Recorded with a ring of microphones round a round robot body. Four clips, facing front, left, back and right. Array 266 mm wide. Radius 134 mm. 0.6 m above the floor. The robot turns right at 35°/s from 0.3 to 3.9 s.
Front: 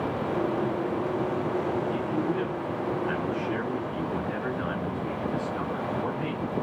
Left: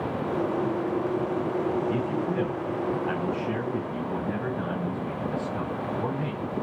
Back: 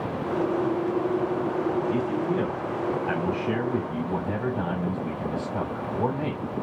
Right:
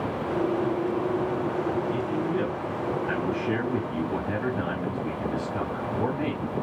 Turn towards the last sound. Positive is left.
turn(degrees=-155)